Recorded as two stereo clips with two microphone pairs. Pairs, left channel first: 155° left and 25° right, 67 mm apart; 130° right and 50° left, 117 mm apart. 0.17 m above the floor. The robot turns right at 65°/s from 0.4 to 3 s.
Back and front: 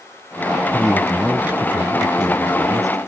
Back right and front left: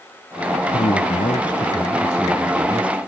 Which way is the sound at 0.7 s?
135° right.